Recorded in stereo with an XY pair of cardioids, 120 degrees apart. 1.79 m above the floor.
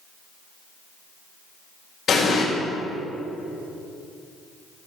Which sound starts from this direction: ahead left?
An explosion, at 2.1 s.